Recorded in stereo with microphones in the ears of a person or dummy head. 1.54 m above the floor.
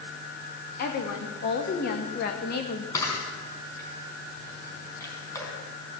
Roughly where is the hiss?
I don't hear a hiss.